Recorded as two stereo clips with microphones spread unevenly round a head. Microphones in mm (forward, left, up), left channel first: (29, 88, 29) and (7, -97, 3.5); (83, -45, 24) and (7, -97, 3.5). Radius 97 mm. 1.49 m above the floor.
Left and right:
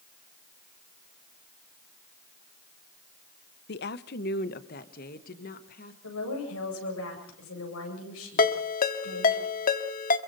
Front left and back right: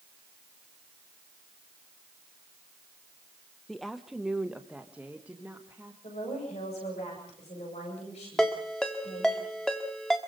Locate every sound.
3.7 s a woman speaking: 120° left, 0.8 m; by 5.9 s 130° left, 2 m
6.0 s a woman speaking: 75° left, 8 m
8.4 s a ringtone: 110° left, 1.4 m